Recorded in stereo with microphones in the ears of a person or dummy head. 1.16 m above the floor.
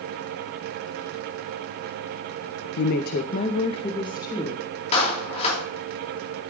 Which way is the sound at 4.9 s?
35° left (ahead or behind).